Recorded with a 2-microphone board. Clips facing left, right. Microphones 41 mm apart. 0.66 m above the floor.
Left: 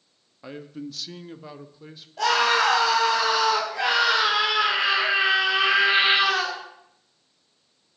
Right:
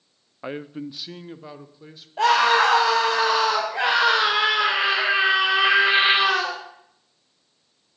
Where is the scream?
35° right (ahead or behind), 3 m.